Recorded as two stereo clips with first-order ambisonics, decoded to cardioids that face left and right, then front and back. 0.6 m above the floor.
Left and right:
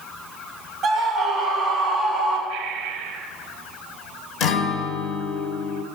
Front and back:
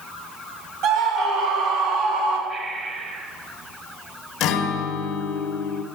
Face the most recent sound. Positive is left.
turn(degrees=45)